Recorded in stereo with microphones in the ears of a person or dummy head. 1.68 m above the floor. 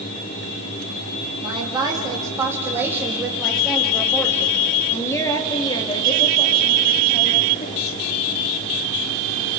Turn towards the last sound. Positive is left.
turn(degrees=40)  # may be behind; listen again after turning